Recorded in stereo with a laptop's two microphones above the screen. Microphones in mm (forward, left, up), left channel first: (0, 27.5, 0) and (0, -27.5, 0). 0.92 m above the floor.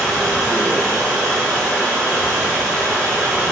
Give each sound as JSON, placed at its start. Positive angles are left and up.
{"t": 0.0, "sound": "running water", "side_deg": -10, "distance_m": 1.4}